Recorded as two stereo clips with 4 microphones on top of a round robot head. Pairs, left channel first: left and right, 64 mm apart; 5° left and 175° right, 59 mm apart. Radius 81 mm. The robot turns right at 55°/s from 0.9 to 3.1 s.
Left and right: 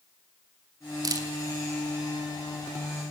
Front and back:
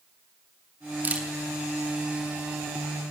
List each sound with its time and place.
1.0 s a camera shutter: 115° right, 4 m; by 3.1 s straight ahead, 4 m